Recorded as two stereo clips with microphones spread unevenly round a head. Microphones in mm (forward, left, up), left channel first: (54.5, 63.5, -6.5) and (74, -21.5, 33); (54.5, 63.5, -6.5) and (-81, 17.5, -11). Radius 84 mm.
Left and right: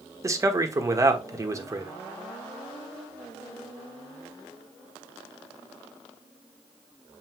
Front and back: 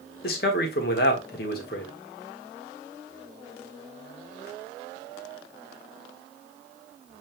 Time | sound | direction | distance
0.2 | a man speaking | 10° right | 1.3 m